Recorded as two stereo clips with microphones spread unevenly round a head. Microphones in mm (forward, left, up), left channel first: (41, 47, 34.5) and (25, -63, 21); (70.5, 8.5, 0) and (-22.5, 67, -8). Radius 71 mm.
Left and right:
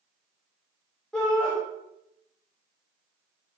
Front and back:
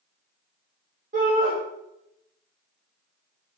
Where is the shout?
165° left, 2.5 m.